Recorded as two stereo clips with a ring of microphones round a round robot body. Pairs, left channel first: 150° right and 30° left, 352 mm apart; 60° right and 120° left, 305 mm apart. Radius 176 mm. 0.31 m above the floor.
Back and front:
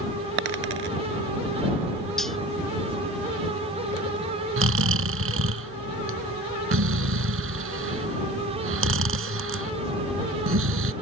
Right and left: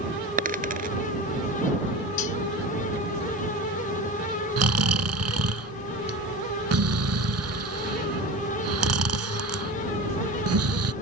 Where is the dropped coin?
55° left.